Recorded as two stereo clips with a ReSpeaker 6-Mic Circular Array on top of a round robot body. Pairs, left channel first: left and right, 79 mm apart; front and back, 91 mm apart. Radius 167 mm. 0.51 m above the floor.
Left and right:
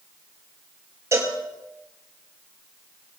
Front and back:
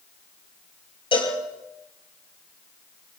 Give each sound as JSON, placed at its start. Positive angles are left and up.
{"t": 1.1, "sound": "a cowbell", "azimuth_deg": -35, "distance_m": 4.5}